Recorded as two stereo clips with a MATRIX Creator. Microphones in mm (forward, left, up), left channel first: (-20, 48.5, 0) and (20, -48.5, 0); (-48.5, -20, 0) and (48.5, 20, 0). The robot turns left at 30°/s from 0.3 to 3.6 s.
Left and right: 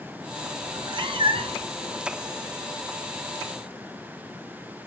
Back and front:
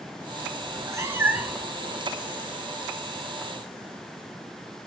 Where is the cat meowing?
25° right, 1.1 m; by 1.7 s 60° right, 1.1 m.